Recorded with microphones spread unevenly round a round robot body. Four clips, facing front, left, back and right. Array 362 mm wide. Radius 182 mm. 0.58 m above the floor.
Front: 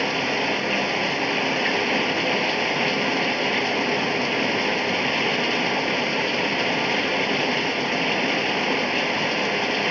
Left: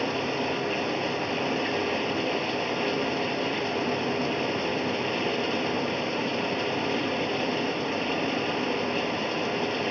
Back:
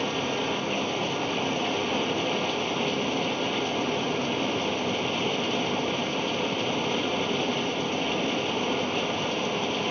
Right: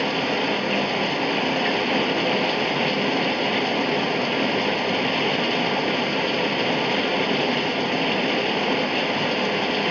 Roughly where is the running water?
Ahead right.